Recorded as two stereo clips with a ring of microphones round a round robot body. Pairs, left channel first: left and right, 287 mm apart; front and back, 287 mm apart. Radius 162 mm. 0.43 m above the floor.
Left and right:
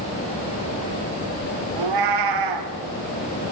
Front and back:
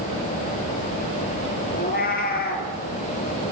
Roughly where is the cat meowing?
Ahead right.